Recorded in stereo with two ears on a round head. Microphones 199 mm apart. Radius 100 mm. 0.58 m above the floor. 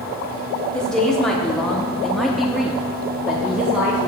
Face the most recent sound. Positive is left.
turn(degrees=-5)  # may be behind; listen again after turning